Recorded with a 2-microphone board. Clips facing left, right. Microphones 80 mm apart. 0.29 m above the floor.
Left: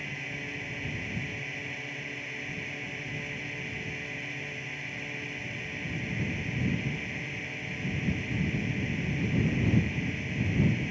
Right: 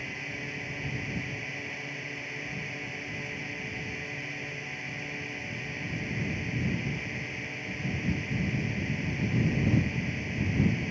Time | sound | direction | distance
0.0 | a drone | 5° right (ahead or behind) | ?